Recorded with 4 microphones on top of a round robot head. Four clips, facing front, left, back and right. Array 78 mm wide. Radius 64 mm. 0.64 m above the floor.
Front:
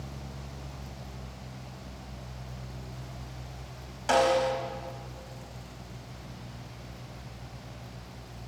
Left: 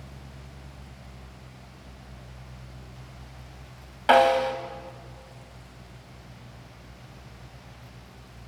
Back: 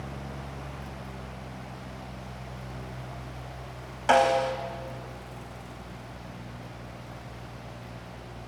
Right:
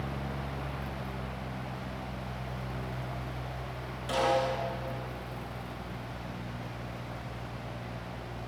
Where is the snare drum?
115° left, 2.5 m.